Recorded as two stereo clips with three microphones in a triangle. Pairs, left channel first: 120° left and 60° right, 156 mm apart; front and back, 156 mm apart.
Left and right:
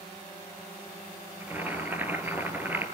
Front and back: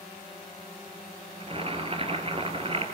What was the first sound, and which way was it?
Boiling, 135° right.